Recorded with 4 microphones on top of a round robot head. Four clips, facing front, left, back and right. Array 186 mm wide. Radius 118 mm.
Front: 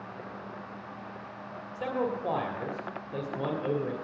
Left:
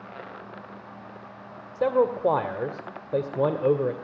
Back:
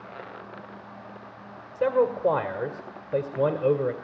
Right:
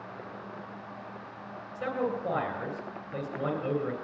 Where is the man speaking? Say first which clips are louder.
Left 9 dB, back 8 dB; 115° left, 1.8 m.